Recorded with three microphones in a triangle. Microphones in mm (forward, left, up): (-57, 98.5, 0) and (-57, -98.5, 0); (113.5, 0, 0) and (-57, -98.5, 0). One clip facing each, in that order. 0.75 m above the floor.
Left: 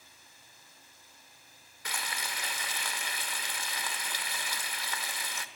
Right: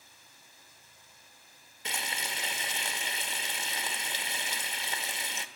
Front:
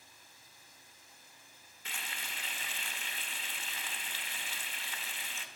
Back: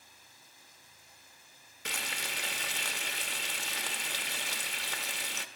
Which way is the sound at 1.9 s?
155° right.